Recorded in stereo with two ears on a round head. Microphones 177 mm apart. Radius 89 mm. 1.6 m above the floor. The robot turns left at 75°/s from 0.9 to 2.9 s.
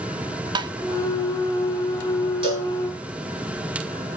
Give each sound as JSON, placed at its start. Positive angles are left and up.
{"t": 0.6, "sound": "tapping", "side_deg": -25, "distance_m": 0.9}
{"t": 2.4, "sound": "a cowbell", "side_deg": -30, "distance_m": 5.5}